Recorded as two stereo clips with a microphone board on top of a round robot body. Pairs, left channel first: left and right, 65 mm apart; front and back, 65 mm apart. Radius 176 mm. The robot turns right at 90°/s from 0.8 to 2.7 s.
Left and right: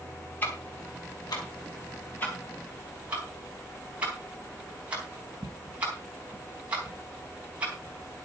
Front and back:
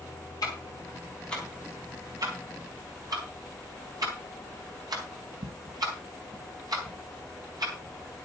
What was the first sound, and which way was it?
Ticking, 25° left.